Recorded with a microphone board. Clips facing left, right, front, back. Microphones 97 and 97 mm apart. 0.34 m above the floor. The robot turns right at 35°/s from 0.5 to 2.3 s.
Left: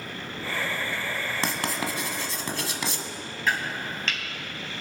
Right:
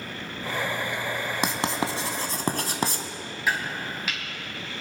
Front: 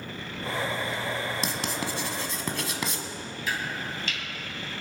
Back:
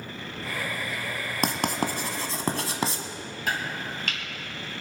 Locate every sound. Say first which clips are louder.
1.4 s writing: right 3 dB, back 4 dB; 160° right, 1.3 m; by 3.0 s 130° right, 1.3 m
3.5 s chopping: even, back 2 dB; 170° right, 3 m